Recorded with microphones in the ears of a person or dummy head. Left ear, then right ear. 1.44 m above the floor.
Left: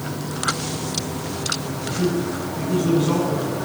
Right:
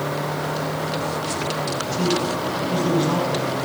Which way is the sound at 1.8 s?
15° right (ahead or behind).